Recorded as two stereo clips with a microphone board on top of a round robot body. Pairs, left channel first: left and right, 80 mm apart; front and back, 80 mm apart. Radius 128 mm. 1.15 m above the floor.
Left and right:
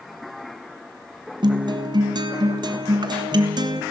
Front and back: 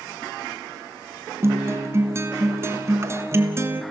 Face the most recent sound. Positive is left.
turn(degrees=-125)